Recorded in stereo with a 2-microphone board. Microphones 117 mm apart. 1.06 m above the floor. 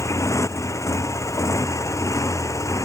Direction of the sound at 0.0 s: 25° left (ahead or behind).